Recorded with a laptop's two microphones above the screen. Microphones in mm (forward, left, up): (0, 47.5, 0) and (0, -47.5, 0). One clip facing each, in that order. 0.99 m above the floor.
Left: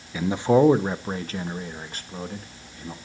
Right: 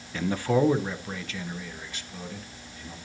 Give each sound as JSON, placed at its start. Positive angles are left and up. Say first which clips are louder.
{"t": 0.1, "sound": "a man speaking", "louder": "left 5 dB", "side_deg": 10, "distance_m": 0.6}